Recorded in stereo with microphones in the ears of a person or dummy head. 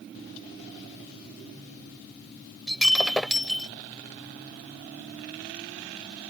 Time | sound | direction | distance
2.7 | breaking glass | centre (ahead or behind) | ?